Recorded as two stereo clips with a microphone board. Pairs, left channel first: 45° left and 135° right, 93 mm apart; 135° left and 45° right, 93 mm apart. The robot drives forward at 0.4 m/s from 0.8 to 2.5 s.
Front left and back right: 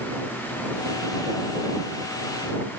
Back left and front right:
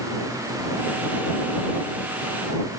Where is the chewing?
I don't hear chewing.